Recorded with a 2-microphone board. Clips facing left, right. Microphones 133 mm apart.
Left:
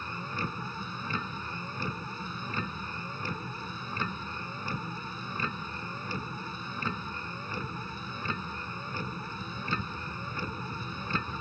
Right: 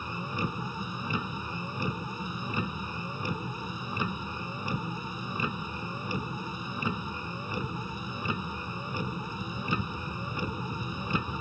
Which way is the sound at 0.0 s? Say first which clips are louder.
Right 3 dB; 15° right (ahead or behind).